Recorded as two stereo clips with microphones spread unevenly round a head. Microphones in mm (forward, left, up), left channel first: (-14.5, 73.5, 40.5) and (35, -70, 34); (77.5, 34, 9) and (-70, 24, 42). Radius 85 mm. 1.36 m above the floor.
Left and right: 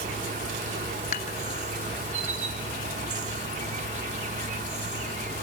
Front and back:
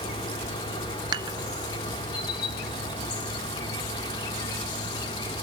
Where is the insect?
65° right, 1.1 m.